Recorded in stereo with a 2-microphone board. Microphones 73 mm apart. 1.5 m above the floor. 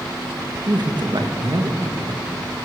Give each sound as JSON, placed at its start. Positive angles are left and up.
{"t": 0.7, "sound": "a man speaking", "side_deg": -70, "distance_m": 1.6}